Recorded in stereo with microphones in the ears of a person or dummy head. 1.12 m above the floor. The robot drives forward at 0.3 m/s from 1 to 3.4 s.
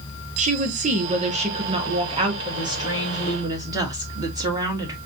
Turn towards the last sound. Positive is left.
turn(degrees=-25)  # may be behind; listen again after turning